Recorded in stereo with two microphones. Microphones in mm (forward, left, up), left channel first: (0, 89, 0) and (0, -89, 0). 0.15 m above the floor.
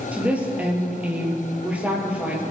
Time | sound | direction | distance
0.1 | a woman speaking | 10° right (ahead or behind) | 2.5 m